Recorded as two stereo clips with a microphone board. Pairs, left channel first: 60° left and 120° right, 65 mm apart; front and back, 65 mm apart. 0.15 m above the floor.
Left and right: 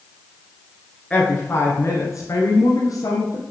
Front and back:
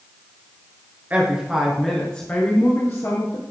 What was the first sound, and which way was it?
A woman speaking, 125° left.